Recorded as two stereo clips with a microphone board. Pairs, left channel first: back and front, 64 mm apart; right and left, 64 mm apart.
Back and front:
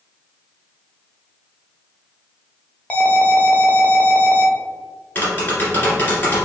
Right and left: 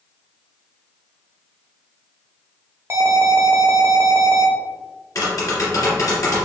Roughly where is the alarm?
Behind left.